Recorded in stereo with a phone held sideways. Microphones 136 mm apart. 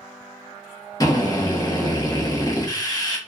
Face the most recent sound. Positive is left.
turn(degrees=25)  # may be behind; listen again after turning